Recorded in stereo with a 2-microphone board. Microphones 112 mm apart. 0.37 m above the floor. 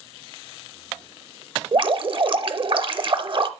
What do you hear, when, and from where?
1.7 s dripping: 50° right (ahead or behind), 0.8 m